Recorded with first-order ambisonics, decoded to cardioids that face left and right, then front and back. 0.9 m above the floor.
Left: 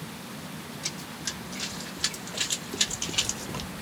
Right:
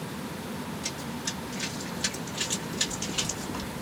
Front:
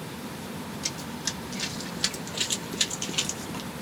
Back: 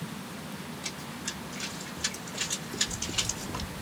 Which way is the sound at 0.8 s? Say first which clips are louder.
Left 1 dB, front 5 dB; 15° left.